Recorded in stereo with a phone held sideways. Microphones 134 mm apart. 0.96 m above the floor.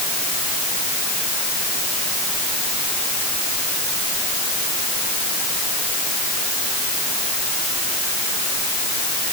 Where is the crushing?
No crushing in this recording.